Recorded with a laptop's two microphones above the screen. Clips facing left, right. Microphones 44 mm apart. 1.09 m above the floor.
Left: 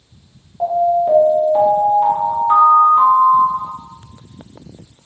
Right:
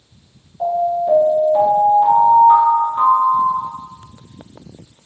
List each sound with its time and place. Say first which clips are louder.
0.6 s an alarm: left 3 dB; 25° left (ahead or behind), 1.2 m